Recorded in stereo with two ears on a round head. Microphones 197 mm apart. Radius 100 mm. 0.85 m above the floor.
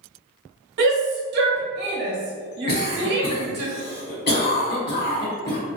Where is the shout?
50° right (ahead or behind), 0.9 m.